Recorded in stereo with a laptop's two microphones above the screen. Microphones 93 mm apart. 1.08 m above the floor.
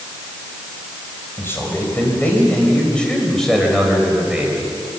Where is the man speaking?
25° left (ahead or behind), 5 m; by 4.7 s 10° right (ahead or behind), 5 m.